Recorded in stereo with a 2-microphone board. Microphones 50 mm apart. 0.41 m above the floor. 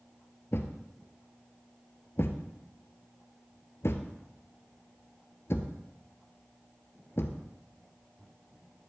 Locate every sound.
0.5 s a thud: 60° left (ahead or behind), 0.9 m